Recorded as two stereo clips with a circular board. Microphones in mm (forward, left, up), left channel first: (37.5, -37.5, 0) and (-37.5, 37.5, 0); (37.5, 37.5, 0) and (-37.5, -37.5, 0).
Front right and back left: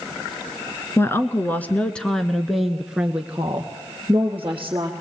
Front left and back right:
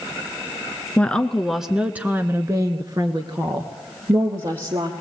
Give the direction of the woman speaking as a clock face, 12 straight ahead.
1 o'clock.